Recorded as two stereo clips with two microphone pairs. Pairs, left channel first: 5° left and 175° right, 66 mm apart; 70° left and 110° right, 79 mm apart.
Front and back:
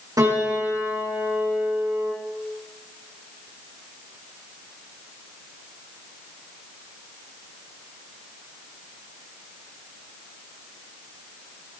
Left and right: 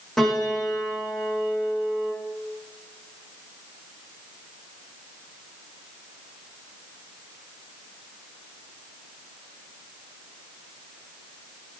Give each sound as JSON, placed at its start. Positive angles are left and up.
{"t": 0.2, "sound": "a piano", "azimuth_deg": 155, "distance_m": 8.5}